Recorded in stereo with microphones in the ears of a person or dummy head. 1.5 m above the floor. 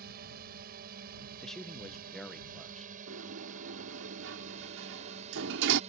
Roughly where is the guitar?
No guitar in this recording.